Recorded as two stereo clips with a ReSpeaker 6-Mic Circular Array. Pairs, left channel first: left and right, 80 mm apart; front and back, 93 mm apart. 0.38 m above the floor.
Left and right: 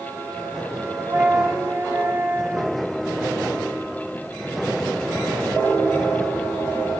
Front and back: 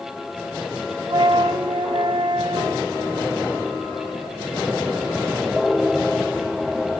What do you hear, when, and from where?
1.1 s a flute: 150° right, 0.6 m